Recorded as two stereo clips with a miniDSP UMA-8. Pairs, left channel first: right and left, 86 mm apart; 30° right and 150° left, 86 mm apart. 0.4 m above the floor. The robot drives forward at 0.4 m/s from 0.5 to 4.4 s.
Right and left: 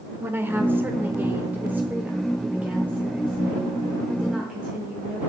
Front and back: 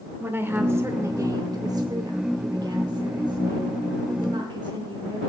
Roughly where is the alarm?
No alarm in this recording.